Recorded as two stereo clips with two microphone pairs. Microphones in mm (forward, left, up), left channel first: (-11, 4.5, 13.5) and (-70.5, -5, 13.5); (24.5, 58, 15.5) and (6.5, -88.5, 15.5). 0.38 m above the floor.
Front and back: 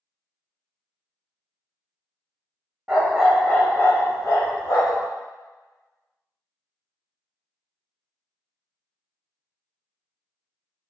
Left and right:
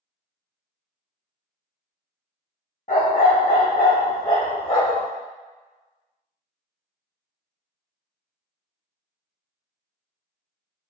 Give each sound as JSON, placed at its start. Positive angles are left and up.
{"t": 2.9, "sound": "a dog barking", "azimuth_deg": 115, "distance_m": 0.7}